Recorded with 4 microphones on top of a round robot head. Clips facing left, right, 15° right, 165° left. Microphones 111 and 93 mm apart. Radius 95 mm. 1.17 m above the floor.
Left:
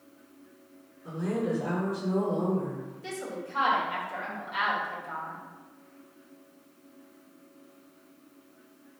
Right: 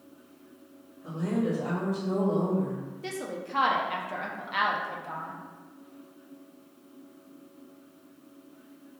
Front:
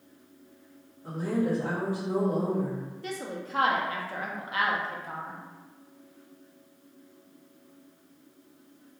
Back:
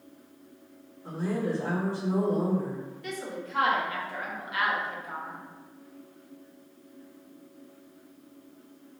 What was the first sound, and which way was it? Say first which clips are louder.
A woman speaking: right 1 dB, front 2 dB; 90° right.